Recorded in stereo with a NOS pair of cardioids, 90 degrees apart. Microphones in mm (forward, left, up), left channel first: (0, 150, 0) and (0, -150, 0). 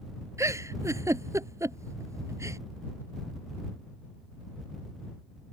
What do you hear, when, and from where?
0.4 s a giggle: 10° right